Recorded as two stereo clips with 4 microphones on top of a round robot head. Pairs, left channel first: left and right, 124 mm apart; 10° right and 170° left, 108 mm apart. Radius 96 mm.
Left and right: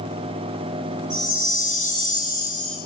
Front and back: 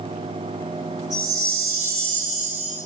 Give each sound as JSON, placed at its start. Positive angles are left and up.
{"t": 1.1, "sound": "a chime", "azimuth_deg": -105, "distance_m": 1.8}